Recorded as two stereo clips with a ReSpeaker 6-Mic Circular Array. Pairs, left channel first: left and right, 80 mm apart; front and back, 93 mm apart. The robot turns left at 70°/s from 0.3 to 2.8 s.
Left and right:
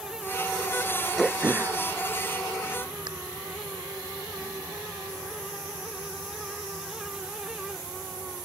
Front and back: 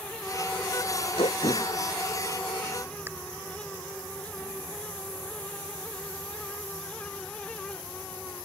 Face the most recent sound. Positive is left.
turn(degrees=-115)